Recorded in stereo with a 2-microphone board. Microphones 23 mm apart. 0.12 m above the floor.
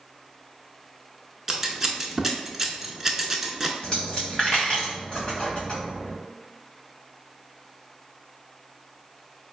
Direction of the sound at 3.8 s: 30° left (ahead or behind).